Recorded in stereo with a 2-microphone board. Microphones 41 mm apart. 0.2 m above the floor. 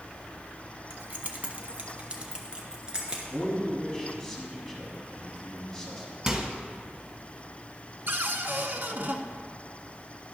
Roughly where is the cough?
No cough in this recording.